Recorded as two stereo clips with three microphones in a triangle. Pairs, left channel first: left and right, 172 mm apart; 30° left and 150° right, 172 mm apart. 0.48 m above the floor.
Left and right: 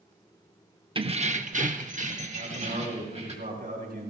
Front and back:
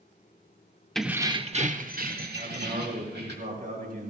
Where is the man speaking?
120° right, 4 m.